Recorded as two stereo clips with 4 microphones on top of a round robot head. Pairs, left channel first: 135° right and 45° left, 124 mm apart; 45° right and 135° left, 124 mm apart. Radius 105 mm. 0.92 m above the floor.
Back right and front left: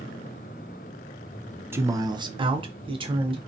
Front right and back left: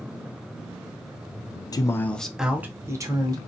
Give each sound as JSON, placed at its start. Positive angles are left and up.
{"t": 1.7, "sound": "a man speaking", "azimuth_deg": -15, "distance_m": 0.6}